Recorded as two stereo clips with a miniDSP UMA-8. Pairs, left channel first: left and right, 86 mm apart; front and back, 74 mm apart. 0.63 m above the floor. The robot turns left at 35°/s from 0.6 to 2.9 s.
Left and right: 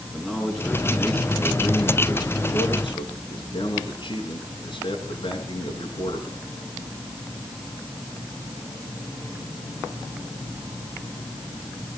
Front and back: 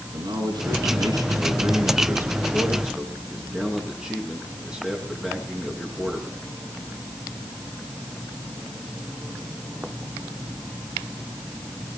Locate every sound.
0.1 s a man speaking: 175° right, 7.5 m; by 6.4 s 105° left, 7.5 m